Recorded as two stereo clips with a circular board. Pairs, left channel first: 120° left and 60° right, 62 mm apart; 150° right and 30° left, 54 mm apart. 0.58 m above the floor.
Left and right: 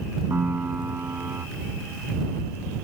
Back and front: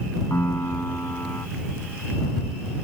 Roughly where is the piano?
Behind right.